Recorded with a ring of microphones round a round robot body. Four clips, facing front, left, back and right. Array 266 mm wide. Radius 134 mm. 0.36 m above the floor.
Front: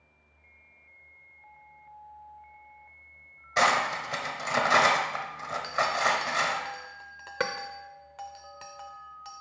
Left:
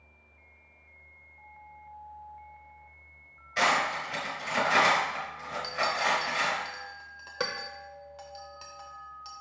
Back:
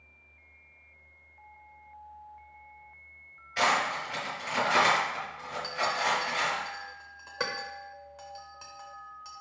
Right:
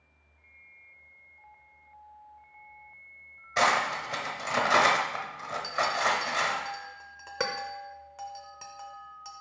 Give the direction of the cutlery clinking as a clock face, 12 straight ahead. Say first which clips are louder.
Right 1 dB, front 2 dB; 1 o'clock.